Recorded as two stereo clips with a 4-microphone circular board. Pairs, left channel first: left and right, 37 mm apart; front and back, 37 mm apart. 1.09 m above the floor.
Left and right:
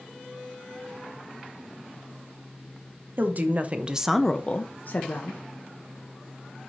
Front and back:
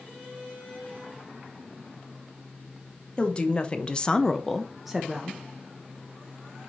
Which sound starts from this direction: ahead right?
A woman speaking, at 3.2 s.